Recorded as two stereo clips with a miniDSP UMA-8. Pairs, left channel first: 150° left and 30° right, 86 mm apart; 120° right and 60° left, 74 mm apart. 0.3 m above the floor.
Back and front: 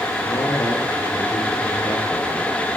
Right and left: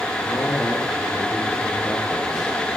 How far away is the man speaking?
About 5.5 m.